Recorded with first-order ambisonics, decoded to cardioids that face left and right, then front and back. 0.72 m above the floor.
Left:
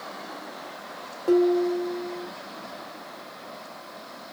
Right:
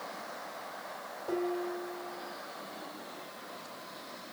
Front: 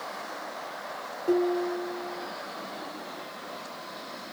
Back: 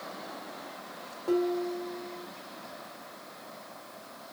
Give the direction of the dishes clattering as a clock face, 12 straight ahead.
9 o'clock.